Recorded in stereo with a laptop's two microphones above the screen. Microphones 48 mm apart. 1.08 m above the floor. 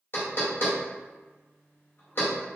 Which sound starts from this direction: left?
Knocking, at 0.1 s.